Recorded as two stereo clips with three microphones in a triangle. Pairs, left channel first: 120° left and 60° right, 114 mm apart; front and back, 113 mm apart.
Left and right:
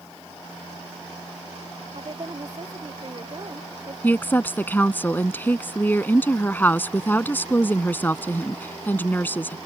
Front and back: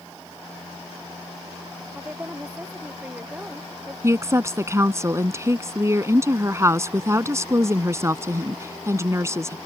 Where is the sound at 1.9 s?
105° right.